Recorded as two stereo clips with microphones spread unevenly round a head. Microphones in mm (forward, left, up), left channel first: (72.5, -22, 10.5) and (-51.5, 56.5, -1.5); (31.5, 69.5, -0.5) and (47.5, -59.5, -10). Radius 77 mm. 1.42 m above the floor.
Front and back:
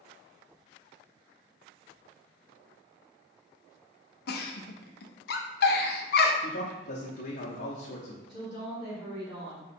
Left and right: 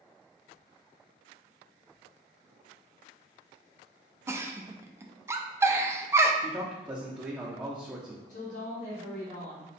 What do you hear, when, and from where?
4.3 s a giggle: 10° right, 0.5 m
6.4 s a man speaking: 5° right, 0.8 m
8.3 s a woman speaking: 85° left, 1.8 m